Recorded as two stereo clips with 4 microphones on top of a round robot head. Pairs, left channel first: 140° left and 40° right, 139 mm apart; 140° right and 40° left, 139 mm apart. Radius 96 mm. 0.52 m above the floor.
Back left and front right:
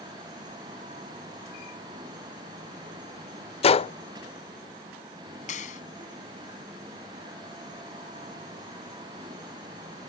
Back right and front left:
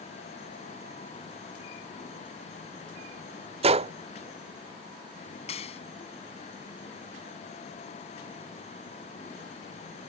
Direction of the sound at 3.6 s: 90° left.